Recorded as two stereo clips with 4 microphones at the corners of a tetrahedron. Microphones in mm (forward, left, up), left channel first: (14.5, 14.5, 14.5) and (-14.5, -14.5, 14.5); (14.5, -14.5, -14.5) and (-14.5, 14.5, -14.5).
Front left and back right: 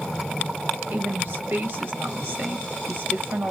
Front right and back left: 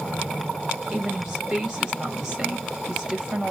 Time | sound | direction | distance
0.9 | a woman speaking | 150° right | 1.6 m